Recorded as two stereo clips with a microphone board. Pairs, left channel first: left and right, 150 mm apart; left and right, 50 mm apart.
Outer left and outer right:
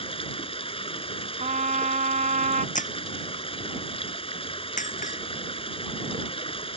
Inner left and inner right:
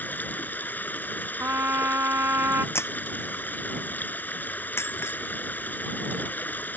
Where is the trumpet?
60° right (ahead or behind).